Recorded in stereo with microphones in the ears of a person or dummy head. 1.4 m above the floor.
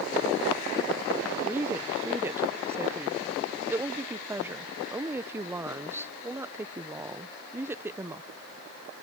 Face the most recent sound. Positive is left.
turn(degrees=-15)  # may be behind; listen again after turning